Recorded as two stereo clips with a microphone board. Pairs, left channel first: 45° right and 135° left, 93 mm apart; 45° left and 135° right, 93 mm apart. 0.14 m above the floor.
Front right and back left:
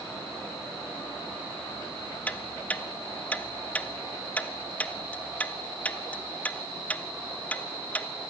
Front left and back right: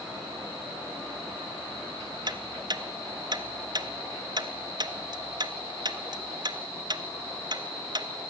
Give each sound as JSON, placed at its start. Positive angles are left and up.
{"t": 2.3, "sound": "ticking", "azimuth_deg": -115, "distance_m": 1.0}